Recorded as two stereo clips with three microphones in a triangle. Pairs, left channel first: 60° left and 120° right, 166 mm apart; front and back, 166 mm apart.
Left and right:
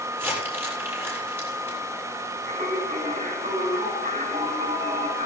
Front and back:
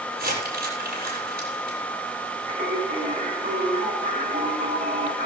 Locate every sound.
0.1 s crumpling: 165° left, 9 m
2.5 s singing: 155° right, 6.5 m